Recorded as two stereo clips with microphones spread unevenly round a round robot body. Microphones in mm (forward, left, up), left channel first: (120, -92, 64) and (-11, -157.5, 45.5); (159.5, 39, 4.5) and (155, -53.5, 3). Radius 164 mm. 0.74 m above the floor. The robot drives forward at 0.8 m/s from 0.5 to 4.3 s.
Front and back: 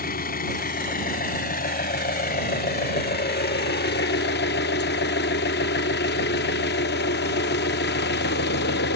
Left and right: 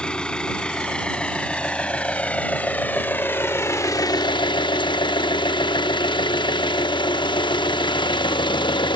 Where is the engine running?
5° left; by 9.0 s 40° left.